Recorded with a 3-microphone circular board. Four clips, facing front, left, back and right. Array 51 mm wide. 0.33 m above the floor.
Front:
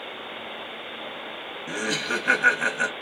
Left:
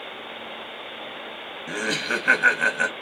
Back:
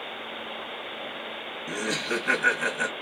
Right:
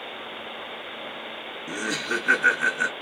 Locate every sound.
1.7 s laughter: 75° left, 2.0 m